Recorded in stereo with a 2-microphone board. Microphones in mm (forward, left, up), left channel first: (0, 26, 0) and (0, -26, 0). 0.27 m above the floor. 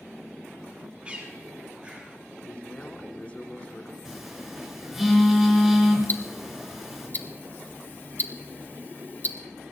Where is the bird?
20° right (ahead or behind), 6 m.